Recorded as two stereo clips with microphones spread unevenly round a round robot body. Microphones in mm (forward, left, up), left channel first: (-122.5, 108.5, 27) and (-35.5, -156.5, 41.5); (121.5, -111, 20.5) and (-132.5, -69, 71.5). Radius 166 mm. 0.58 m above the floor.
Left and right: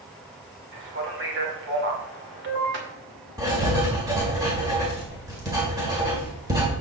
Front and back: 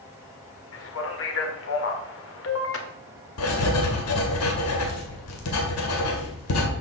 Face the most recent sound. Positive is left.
turn(degrees=10)